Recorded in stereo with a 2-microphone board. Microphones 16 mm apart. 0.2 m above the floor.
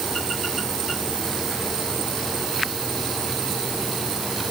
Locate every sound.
Only background noise.